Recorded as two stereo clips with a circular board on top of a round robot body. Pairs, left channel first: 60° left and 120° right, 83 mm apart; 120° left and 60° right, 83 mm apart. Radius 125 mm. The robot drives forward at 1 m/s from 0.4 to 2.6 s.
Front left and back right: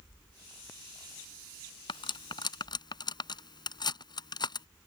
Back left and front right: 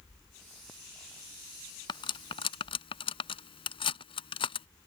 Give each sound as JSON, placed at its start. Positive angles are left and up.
{"t": 1.9, "sound": "cutlery clinking", "azimuth_deg": 85}